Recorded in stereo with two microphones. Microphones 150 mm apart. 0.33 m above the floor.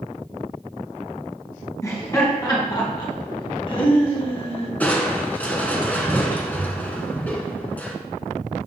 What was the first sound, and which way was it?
Laughter, 20° left (ahead or behind).